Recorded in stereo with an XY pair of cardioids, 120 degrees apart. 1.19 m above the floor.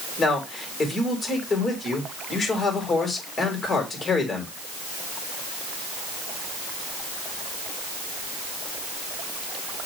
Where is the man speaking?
30° left, 5.5 m.